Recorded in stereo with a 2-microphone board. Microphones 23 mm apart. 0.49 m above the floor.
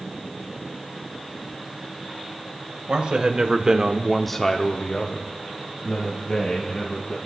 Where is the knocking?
No knocking in this recording.